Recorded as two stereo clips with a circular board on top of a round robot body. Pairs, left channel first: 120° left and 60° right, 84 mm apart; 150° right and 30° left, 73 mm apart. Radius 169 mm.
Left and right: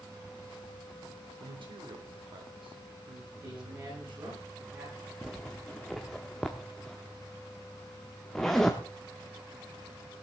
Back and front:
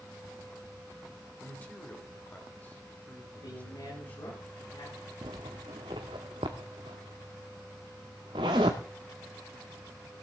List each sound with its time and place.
1.4 s a man speaking: 85° right, 3 m
3.4 s a man speaking: 110° right, 8 m
5.2 s a zipper: 35° left, 0.5 m